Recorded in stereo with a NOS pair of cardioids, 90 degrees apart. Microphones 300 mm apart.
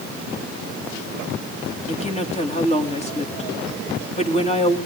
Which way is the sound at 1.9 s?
20° left.